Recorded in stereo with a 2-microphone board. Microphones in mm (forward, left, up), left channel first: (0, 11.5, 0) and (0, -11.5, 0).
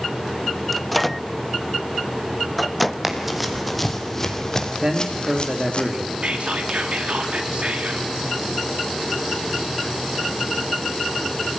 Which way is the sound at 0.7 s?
5° left (ahead or behind).